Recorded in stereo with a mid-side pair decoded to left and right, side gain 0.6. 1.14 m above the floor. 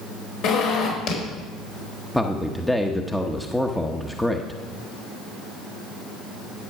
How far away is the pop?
I don't hear a pop.